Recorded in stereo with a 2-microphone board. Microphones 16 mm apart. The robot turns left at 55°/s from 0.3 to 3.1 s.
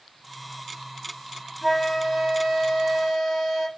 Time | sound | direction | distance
1.6 | a flute | 10° right | 1.5 m